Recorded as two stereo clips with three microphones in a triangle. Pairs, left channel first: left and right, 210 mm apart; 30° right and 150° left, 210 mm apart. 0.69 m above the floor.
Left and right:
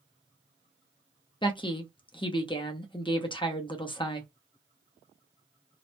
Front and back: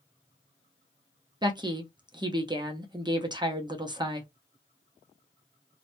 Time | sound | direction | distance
1.4 | a woman speaking | 115° left | 0.6 m